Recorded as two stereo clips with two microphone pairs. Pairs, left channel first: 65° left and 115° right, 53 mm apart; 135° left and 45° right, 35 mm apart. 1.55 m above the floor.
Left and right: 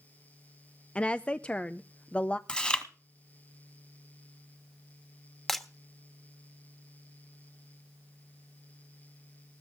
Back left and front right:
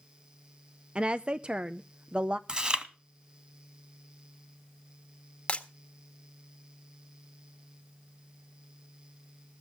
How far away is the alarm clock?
No alarm clock in this recording.